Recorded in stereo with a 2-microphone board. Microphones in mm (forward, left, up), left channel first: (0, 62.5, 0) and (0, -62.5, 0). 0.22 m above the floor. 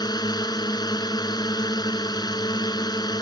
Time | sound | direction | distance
0.0 | a drone | 30° left (ahead or behind) | ?